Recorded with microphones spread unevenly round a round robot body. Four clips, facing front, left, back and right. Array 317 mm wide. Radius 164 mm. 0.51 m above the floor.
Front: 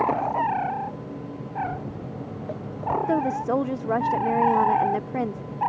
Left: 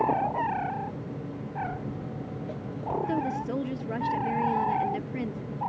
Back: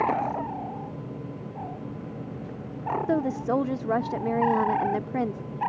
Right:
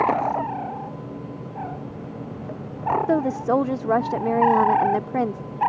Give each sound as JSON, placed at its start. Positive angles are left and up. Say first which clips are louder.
{"t": 1.6, "sound": "footsteps", "louder": "right 1 dB, front 4 dB", "azimuth_deg": -10}
{"t": 3.1, "sound": "a woman speaking", "louder": "right 8 dB, even", "azimuth_deg": -90}